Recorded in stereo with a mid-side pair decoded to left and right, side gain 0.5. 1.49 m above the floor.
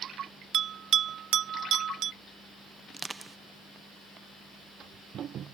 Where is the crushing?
25° right.